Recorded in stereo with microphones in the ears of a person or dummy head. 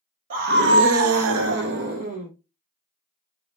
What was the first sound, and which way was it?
A scream, 45° right (ahead or behind).